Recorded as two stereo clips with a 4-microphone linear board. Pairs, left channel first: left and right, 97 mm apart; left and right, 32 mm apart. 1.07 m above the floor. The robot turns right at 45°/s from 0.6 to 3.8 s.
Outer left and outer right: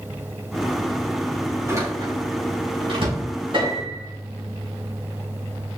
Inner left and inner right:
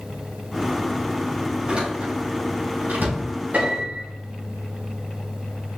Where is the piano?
65° right (ahead or behind), 4 m; by 4.1 s 50° right (ahead or behind), 4 m.